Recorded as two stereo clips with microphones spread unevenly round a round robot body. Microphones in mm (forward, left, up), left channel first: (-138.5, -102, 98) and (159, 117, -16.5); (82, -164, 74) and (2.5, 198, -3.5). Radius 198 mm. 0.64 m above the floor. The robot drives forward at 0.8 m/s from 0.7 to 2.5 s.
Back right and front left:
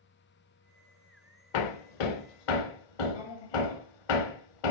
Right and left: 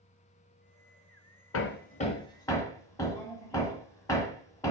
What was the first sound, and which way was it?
Hammering, 130° right.